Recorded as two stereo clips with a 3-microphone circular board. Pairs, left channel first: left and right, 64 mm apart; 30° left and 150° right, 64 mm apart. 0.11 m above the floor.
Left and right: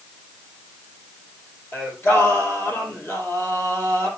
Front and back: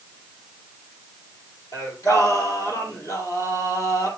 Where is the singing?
40° left, 3 m.